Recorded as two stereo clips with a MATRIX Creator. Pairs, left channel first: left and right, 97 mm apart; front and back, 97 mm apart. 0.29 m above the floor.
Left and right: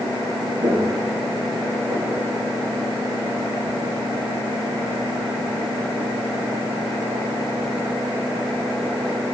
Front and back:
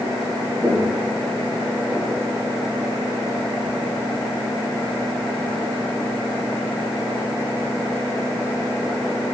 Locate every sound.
0.6 s footsteps: 95° right, 5 m; by 2.2 s 100° right, 7 m